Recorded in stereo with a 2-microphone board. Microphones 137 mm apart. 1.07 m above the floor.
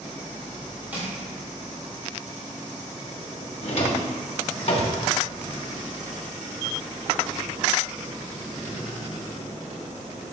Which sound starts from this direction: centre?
Crushing, at 0.9 s.